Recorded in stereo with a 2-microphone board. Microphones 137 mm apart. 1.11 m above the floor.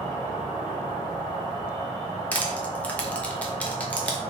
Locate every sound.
0.0 s an insect: 35° left (ahead or behind), 0.9 m
2.3 s crushing: 10° left (ahead or behind), 0.5 m